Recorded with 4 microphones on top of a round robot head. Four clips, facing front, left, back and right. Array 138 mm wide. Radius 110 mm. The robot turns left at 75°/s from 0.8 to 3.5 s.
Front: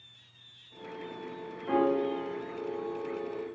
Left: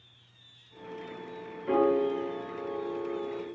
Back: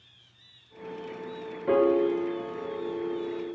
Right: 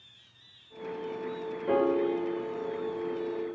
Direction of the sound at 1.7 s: 165° right.